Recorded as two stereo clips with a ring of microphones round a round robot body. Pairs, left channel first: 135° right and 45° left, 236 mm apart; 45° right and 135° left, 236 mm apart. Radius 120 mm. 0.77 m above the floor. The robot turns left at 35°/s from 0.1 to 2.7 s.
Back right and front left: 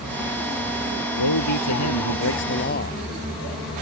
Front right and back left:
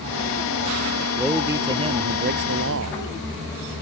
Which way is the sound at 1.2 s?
135° right.